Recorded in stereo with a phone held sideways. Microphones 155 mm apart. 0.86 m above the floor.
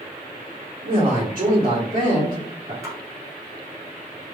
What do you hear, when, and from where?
0.8 s a man speaking: 55° right (ahead or behind), 2.0 m; by 2.7 s 60° right (ahead or behind), 1.7 m
2.8 s a splash: 20° right (ahead or behind), 1.1 m